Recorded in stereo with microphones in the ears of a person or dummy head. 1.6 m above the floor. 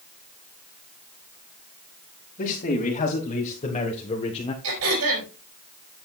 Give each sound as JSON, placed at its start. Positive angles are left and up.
{"t": 2.4, "sound": "a man speaking", "side_deg": 40, "distance_m": 3.0}
{"t": 4.6, "sound": "throat clearing", "side_deg": -80, "distance_m": 6.5}